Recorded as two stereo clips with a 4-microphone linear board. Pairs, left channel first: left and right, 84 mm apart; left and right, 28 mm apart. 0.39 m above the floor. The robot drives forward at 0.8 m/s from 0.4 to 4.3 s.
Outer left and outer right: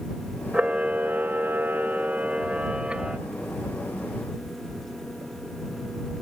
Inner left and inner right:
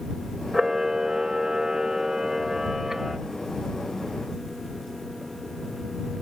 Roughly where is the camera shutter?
Centre.